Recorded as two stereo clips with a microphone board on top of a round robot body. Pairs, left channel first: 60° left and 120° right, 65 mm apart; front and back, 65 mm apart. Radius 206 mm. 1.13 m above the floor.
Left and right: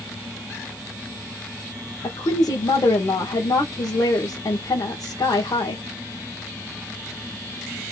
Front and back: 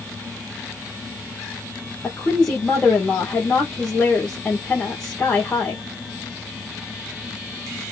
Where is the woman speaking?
75° left, 1.5 m.